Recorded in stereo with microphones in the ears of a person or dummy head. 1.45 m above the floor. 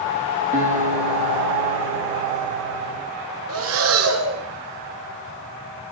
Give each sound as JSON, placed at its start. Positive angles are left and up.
{"t": 0.5, "sound": "a guitar", "side_deg": -30, "distance_m": 0.8}
{"t": 3.5, "sound": "breathing", "side_deg": -70, "distance_m": 0.9}